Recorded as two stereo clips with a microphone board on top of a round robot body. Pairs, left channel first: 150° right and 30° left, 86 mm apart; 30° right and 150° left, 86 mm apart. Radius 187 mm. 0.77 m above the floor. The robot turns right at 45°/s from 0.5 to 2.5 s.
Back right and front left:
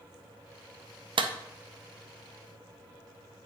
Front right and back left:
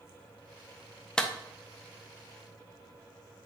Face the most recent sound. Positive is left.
turn(degrees=110)